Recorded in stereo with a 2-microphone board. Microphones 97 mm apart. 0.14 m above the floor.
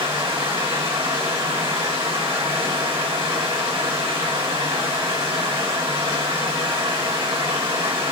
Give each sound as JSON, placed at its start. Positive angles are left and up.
{"t": 0.0, "sound": "running water", "side_deg": -70, "distance_m": 1.3}